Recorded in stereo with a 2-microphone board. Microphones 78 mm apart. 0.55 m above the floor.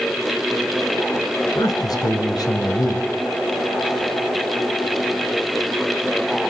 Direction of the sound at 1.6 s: 60° left (ahead or behind).